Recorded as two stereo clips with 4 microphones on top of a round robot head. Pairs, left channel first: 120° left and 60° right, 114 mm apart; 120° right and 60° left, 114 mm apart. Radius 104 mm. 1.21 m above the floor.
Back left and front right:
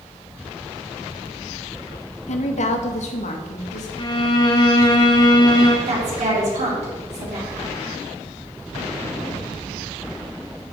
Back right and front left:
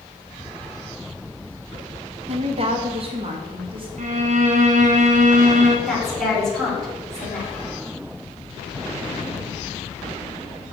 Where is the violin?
70° left, 1.3 m.